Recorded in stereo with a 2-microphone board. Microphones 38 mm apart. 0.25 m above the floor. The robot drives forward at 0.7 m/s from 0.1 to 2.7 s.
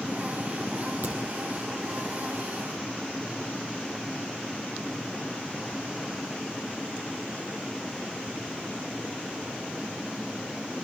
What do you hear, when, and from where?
1.0 s a crack: 50° right (ahead or behind), 7.5 m